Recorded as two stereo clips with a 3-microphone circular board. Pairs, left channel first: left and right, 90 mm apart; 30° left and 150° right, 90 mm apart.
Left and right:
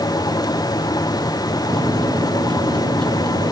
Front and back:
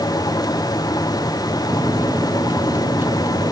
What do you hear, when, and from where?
1.7 s a microwave: 90° right